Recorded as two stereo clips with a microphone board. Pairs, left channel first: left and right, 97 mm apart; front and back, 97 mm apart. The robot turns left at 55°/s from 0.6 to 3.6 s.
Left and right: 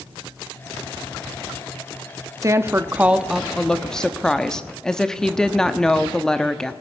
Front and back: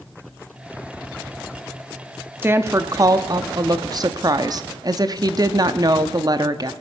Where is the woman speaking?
125° right, 0.8 m; by 6.7 s 170° left, 0.8 m.